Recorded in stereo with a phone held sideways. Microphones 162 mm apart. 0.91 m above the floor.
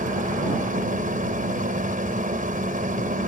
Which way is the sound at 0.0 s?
55° right (ahead or behind).